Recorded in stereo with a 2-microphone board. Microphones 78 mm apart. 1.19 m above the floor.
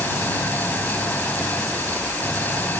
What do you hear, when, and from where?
0.0 s an engine running: 20° left (ahead or behind)